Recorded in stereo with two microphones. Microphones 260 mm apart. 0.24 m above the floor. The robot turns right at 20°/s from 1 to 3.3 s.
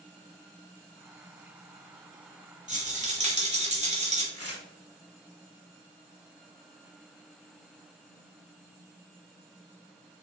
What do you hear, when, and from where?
2.7 s a rattle: 30° right (ahead or behind), 1.1 m; by 4.2 s 25° right (ahead or behind), 1.1 m
4.3 s tearing paper: 65° left (ahead or behind), 0.9 m